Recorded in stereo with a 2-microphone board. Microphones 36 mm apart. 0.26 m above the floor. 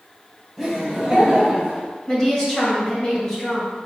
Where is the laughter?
5° right (ahead or behind), 1.6 m; by 1.9 s 30° right (ahead or behind), 1.4 m.